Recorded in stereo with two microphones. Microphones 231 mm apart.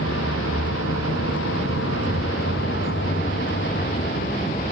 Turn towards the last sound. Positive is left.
turn(degrees=40)  # may be behind; listen again after turning